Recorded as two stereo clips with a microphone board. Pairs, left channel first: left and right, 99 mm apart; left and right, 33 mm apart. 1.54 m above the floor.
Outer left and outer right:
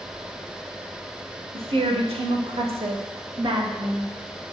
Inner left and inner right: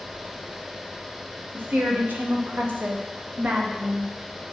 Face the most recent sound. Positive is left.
turn(degrees=-35)  # may be behind; listen again after turning